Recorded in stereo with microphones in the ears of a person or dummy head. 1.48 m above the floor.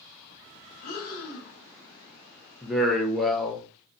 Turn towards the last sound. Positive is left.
turn(degrees=0)  # may be behind; listen again after turning